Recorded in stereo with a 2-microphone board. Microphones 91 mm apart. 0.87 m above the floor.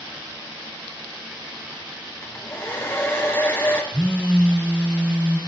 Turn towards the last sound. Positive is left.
turn(degrees=-15)  # may be behind; listen again after turning